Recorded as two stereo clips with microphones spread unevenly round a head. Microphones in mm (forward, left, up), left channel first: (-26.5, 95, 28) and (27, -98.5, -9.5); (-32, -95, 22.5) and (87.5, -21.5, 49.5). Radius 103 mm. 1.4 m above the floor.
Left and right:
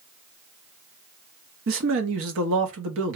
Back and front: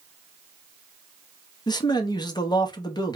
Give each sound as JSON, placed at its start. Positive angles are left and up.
{"t": 1.7, "sound": "a man speaking", "azimuth_deg": -90, "distance_m": 1.1}